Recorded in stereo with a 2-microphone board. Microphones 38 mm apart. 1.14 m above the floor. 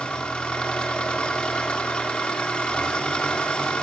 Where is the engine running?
25° left (ahead or behind), 2.5 m.